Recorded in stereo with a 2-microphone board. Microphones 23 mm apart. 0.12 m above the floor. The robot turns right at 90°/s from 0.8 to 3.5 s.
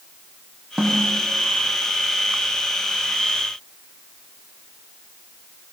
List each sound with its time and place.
0.8 s a snare drum: 30° right (ahead or behind), 4.5 m; by 1.1 s 5° right (ahead or behind), 4.5 m